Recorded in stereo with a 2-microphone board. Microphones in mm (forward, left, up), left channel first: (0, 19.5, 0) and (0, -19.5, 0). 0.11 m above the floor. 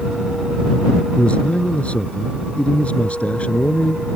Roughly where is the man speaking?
Left.